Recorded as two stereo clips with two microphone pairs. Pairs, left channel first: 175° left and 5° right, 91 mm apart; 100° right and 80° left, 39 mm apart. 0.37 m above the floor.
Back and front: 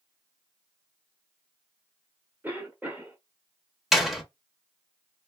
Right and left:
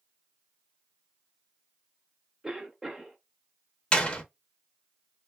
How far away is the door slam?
About 0.5 m.